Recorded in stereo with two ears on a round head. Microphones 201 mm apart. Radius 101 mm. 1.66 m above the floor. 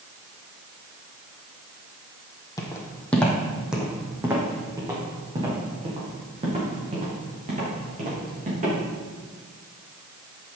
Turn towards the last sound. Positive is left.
turn(degrees=-35)  # may be behind; listen again after turning